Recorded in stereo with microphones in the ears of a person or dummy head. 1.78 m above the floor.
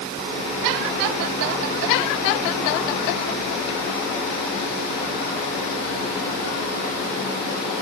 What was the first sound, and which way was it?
Only background noise.